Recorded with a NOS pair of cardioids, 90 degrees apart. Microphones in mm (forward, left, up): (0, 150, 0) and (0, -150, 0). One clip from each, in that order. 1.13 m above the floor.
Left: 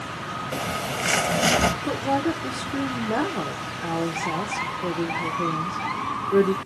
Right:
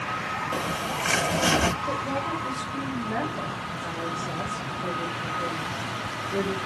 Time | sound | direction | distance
0.5 | a bird | 20° left | 0.8 m
1.8 | a woman speaking | 65° left | 1.0 m